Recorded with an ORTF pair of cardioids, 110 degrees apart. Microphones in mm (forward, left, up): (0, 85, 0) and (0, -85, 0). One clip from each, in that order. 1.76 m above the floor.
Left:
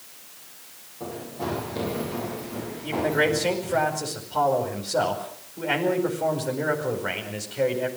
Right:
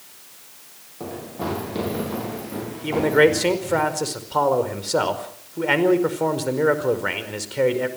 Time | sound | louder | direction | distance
1.0 | running footsteps | right 2 dB | 40° right | 10 m
2.8 | a man speaking | right 6 dB | 45° right | 5 m